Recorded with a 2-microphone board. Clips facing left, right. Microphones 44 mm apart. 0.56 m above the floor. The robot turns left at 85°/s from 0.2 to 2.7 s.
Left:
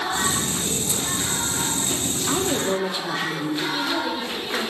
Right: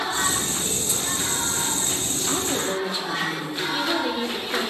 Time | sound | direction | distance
2.3 | a woman speaking | 15° left (ahead or behind) | 0.7 m
3.7 | a woman speaking | 30° right (ahead or behind) | 1.9 m